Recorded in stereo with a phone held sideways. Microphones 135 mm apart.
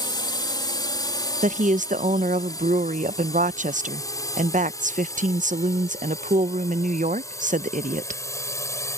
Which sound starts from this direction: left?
A drone, at 0.0 s.